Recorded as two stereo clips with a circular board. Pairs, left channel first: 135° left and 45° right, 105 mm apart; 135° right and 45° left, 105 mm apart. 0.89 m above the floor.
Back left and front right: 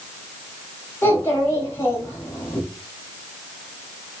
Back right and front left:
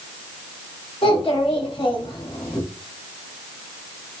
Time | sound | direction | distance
1.0 | a child speaking | 160° right | 5.5 m